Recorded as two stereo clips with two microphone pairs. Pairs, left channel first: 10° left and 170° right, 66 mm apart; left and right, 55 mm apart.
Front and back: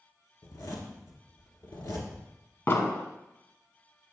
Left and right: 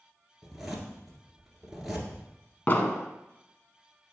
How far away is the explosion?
About 0.7 m.